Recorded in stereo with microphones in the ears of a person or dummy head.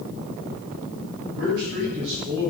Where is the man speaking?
65° right (ahead or behind), 8 m; by 2.5 s 60° right (ahead or behind), 9 m.